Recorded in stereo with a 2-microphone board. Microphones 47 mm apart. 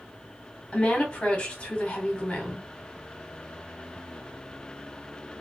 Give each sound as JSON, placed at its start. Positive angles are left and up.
{"t": 0.7, "sound": "a woman speaking", "side_deg": 25, "distance_m": 1.8}